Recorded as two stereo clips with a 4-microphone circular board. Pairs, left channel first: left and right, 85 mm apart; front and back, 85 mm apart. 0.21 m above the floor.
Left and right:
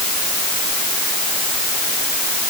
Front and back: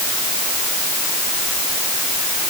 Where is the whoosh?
No whoosh in this recording.